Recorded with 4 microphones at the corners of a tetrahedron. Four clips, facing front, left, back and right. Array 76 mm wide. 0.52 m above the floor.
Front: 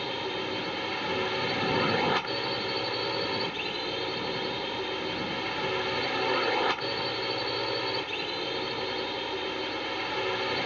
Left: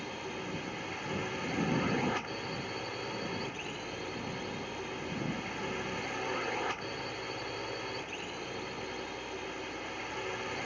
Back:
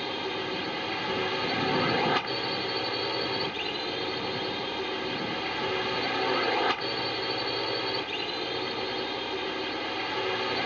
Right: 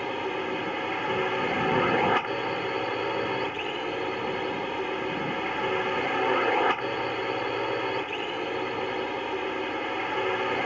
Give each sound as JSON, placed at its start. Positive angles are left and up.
{"t": 0.0, "sound": "a drone", "azimuth_deg": -90}